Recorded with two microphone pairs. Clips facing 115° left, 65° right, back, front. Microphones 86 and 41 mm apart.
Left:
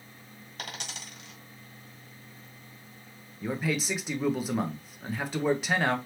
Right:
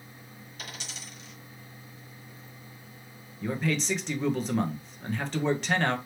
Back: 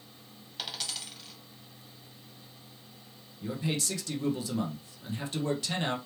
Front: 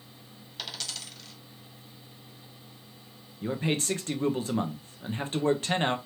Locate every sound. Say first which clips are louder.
0.6 s a dropped coin: left 3 dB, even; 95° left, 2 m
3.4 s a man speaking: right 1 dB, front 4 dB; 35° left, 0.9 m